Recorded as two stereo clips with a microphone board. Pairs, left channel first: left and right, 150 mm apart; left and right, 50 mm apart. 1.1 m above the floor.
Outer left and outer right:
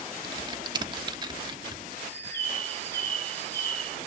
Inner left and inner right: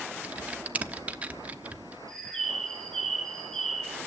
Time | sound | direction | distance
0.2 | typing on a keyboard | 30° right (ahead or behind) | 1.0 m
2.1 | a bird | 10° left (ahead or behind) | 4.5 m